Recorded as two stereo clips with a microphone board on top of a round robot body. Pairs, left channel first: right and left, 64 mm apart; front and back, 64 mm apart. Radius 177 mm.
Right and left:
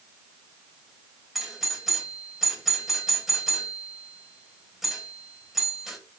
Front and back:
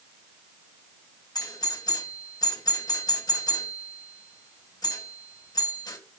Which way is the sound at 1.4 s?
5° left.